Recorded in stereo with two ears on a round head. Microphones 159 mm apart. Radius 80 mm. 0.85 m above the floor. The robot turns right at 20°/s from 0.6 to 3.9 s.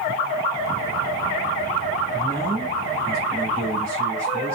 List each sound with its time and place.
2.1 s a man speaking: 165° right, 2.5 m; by 4.5 s 130° right, 2.5 m